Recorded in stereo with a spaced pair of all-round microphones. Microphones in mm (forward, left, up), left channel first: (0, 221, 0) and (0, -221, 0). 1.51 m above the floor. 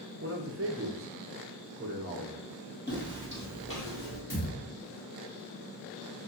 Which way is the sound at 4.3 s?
40° left (ahead or behind).